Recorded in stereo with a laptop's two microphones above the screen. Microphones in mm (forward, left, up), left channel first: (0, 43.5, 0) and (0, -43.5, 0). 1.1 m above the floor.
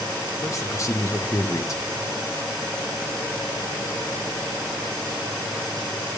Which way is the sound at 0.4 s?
40° left (ahead or behind).